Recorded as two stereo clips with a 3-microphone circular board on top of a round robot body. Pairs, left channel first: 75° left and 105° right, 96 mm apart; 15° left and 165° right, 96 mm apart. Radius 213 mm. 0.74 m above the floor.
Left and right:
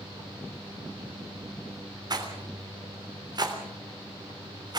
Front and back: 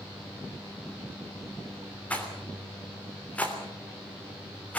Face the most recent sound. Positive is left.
turn(degrees=-60)